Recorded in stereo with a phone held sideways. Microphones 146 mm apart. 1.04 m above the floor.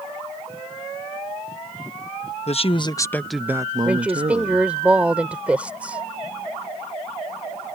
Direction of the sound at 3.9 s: 10° right (ahead or behind).